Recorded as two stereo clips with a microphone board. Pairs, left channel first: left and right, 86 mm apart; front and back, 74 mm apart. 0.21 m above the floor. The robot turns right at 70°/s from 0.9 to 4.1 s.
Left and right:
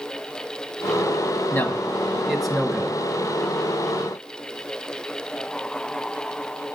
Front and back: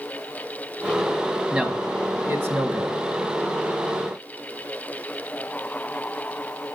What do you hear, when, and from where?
1.5 s a man speaking: 115° left, 1.3 m; by 3.0 s 140° right, 1.3 m